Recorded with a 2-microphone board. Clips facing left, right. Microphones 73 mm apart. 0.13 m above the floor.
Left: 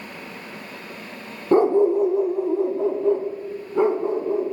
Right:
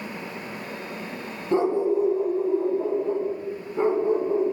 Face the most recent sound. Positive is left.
turn(degrees=85)